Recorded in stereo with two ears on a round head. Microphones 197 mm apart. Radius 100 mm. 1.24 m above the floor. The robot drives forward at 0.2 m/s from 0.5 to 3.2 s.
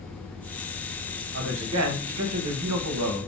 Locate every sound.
1.3 s a man speaking: 55° right (ahead or behind), 0.6 m; by 3.3 s 80° right, 0.5 m